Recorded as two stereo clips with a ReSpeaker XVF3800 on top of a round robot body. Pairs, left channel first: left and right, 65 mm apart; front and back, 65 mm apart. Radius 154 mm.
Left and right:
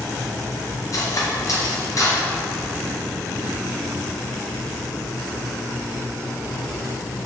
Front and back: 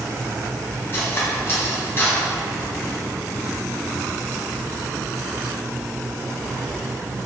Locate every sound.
0.9 s cutlery clinking: 55° left, 2 m